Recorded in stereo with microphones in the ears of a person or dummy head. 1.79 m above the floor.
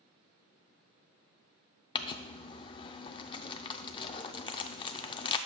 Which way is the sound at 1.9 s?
30° left (ahead or behind).